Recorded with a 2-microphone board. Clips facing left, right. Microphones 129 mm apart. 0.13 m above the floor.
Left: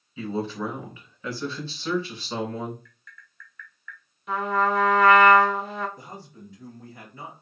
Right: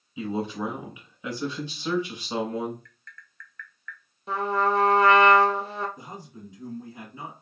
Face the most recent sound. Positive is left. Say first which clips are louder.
# right 1 dB
turn(degrees=-15)  # may be behind; listen again after turning